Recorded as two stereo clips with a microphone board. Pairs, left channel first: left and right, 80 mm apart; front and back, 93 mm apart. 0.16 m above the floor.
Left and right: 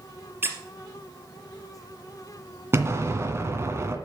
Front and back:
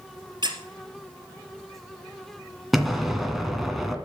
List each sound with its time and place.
0.4 s a squeak: 150° right, 2 m
2.7 s an explosion: 90° right, 1.8 m